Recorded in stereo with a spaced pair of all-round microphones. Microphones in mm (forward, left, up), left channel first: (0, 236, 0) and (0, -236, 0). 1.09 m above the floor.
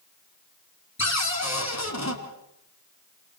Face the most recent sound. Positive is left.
turn(degrees=35)  # may be behind; listen again after turning